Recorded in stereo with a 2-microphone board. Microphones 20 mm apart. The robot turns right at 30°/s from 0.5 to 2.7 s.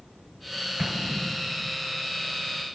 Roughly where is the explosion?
Ahead right.